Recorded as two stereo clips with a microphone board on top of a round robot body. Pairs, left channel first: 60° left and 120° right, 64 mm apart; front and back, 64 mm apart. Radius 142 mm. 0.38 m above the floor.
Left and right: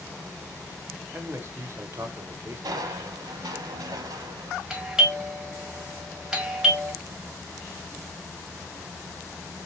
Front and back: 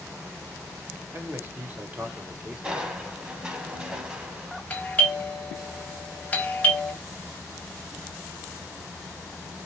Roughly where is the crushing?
Right.